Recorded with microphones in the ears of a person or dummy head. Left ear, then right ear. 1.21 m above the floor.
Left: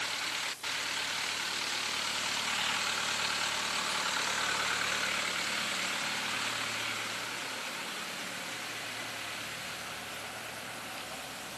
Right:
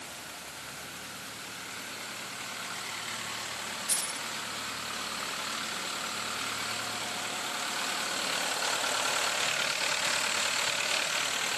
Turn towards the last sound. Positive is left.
turn(degrees=-50)  # may be behind; listen again after turning